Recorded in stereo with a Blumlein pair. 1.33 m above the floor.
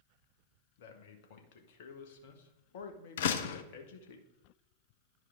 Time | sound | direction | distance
0.8 | a man speaking | 50° left | 1.3 m
3.2 | a door slam | 60° left | 0.6 m